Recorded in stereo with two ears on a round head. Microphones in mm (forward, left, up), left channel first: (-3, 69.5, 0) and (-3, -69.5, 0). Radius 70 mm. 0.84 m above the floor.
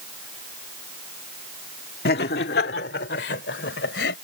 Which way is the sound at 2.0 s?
70° left (ahead or behind).